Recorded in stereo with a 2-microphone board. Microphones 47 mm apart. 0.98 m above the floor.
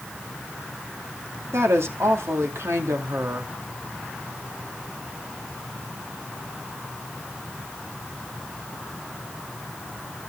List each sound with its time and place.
1.5 s a woman speaking: 70° right (ahead or behind), 2.5 m